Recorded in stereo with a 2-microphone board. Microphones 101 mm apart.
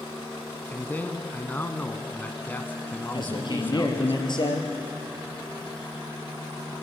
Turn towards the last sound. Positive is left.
turn(degrees=50)  # may be behind; listen again after turning